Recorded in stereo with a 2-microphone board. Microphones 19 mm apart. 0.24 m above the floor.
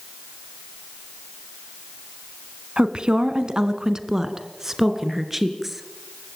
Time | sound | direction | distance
2.8 | a woman speaking | 55° right (ahead or behind) | 2 m